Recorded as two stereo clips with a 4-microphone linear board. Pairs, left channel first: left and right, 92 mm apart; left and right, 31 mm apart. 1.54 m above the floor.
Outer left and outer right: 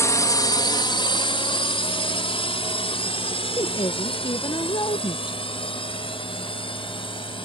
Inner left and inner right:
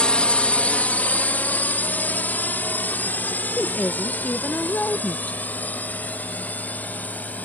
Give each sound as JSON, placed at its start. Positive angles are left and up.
{"t": 0.0, "sound": "a drone", "side_deg": 35}
{"t": 3.6, "sound": "a woman speaking", "side_deg": 55}